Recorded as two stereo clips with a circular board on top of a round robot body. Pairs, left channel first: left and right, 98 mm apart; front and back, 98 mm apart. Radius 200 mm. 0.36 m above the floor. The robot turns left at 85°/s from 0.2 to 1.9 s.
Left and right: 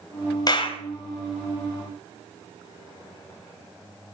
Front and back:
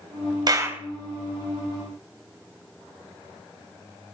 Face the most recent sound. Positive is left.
turn(degrees=15)